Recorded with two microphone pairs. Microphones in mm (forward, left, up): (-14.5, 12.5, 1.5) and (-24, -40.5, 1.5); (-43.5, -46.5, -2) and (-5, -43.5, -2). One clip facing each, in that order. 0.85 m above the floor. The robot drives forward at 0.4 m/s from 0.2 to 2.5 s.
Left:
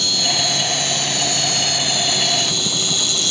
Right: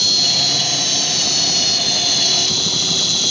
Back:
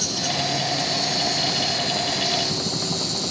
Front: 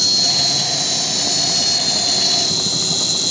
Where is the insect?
Straight ahead; by 3.3 s 5° right.